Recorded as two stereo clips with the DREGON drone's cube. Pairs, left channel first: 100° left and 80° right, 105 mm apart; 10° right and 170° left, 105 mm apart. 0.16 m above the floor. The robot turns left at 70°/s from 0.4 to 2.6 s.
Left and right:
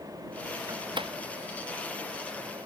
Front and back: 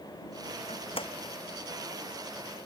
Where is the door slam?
20° right; by 1.1 s 50° right.